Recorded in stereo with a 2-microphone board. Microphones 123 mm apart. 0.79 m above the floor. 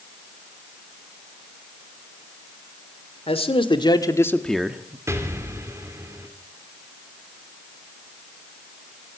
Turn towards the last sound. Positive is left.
turn(degrees=-20)  # may be behind; listen again after turning